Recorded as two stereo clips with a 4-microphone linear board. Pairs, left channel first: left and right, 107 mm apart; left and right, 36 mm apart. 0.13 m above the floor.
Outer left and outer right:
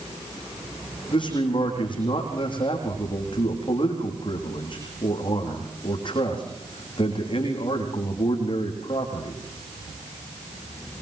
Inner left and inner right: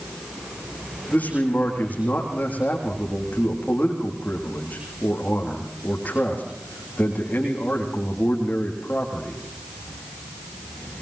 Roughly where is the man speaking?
Left.